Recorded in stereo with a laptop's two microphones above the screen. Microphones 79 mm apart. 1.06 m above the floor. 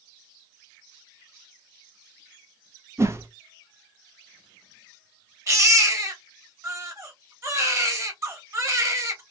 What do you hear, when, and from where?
3.0 s a whoosh: 30° right (ahead or behind), 0.6 m
5.5 s a baby crying: 35° right (ahead or behind), 1.2 m